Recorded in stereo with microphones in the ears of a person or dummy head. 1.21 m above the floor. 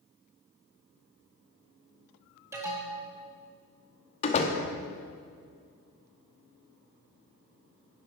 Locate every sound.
2.5 s an alarm: 10° right (ahead or behind), 1.4 m
4.2 s a door slam: 35° left (ahead or behind), 1.1 m